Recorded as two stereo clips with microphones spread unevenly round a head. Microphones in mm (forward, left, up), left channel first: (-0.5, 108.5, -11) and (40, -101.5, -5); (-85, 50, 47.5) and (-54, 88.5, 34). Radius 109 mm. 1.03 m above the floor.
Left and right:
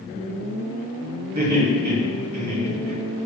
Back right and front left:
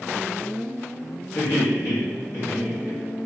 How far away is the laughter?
About 1.6 m.